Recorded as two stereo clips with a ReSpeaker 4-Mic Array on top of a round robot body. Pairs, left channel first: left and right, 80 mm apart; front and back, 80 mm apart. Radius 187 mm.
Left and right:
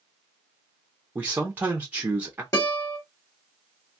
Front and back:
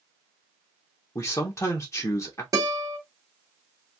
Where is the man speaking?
30° right, 0.9 m.